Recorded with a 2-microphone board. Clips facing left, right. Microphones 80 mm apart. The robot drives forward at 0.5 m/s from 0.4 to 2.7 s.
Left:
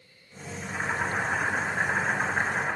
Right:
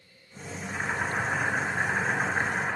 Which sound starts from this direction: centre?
Boiling, at 0.6 s.